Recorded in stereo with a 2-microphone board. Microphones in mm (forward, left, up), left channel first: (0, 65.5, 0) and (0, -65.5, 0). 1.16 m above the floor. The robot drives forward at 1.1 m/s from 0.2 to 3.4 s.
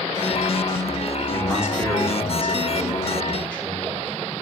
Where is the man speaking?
25° left (ahead or behind), 1.8 m; by 4.1 s 10° left (ahead or behind), 4 m.